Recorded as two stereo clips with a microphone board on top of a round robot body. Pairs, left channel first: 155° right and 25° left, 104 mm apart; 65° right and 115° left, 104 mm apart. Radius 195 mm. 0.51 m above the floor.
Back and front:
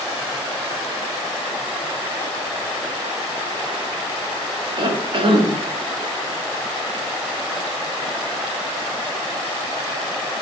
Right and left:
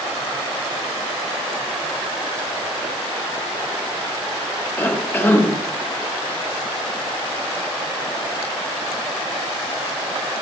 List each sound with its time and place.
4.8 s a cough: straight ahead, 1.9 m